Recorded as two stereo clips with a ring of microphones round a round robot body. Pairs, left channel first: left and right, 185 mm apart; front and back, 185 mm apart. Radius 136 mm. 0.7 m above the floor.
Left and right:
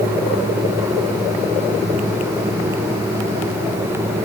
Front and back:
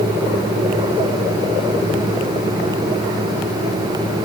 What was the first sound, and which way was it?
Only background noise.